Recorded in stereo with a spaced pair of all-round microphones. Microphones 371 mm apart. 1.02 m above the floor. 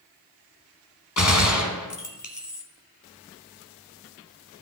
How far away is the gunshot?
About 1.7 m.